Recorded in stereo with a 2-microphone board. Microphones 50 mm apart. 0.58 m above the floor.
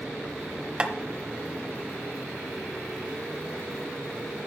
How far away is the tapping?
About 0.7 m.